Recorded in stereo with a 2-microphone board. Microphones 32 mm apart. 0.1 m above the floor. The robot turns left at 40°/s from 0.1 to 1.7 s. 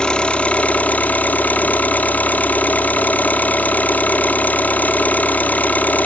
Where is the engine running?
150° left, 1.0 m; by 6.1 s 85° left, 1.0 m.